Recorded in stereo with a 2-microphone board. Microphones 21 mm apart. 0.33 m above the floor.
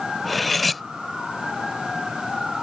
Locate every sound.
0.2 s cutlery clinking: 5° left (ahead or behind)